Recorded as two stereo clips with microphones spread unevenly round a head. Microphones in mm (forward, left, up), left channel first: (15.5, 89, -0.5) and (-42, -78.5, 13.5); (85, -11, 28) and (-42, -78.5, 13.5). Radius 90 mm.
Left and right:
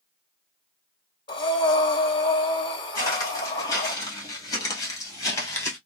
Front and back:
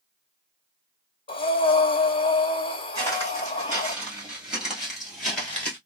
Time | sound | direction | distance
1.3 | breathing | 15° left | 0.8 m
3.0 | footsteps | 140° left | 2 m